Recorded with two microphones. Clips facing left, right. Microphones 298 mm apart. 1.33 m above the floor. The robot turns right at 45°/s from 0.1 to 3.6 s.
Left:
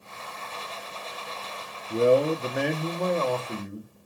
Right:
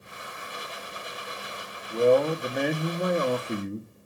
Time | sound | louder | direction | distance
1.9 | a man speaking | even | 145° left | 0.6 m